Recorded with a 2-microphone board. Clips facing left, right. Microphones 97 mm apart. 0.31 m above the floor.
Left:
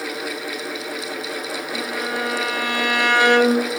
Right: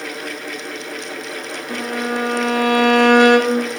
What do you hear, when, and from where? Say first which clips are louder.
1.7 s a violin: right 5 dB; 50° right (ahead or behind), 1.5 m